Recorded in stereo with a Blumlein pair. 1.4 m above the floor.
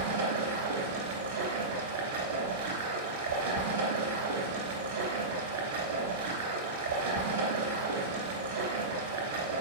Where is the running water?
60° right, 2 m.